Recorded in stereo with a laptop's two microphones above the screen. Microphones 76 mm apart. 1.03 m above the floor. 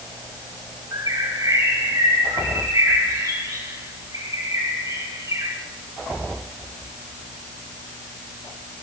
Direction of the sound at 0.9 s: 50° right (ahead or behind).